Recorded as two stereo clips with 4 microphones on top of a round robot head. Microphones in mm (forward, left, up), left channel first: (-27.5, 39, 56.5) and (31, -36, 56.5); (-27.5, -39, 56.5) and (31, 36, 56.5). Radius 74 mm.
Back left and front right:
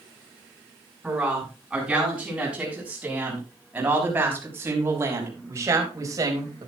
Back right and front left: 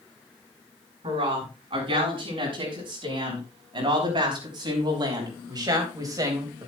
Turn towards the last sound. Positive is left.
turn(degrees=-5)